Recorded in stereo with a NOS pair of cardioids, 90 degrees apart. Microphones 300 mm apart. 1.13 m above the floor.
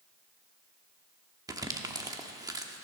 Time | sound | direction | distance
1.5 | crumpling | 10° right | 1.3 m